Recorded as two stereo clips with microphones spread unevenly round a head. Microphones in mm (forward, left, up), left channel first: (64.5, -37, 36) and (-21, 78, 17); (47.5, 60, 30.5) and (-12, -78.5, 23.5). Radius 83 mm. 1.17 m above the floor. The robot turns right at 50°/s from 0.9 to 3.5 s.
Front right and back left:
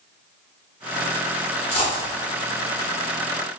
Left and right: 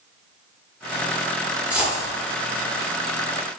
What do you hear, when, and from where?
1.7 s a dropped coin: 30° right, 1.0 m; by 2.1 s 10° right, 1.0 m